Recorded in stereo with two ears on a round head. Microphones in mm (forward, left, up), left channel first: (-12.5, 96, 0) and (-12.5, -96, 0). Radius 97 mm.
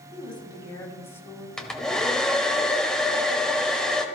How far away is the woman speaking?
About 5 m.